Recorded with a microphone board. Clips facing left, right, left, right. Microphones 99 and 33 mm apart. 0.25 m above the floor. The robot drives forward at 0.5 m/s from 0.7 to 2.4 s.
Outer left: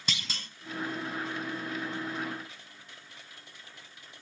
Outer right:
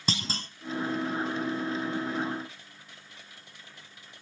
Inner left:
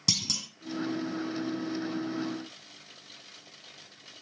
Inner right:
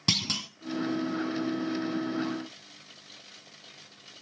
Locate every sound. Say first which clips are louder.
0.1 s a clunk: outer right 7 dB, inner right 3 dB; 35° right (ahead or behind), 1.0 m